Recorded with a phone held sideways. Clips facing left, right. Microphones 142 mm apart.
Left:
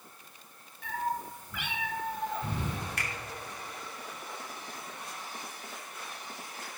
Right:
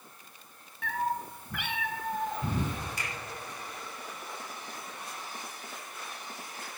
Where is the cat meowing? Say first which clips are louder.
Right 2 dB; 65° right (ahead or behind), 1.8 m; by 2.8 s 40° right (ahead or behind), 1.8 m.